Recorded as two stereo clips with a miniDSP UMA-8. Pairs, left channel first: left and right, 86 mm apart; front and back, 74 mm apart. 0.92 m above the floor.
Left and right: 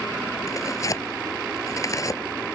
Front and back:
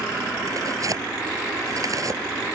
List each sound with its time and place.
0.5 s tearing paper: 140° left